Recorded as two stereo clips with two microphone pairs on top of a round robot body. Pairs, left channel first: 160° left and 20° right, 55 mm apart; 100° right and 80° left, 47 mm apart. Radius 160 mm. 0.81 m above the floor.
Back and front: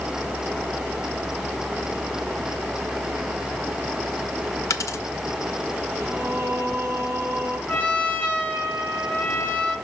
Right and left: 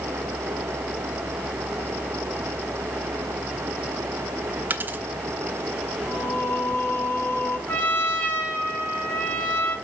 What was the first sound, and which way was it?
A dropped coin, 125° left.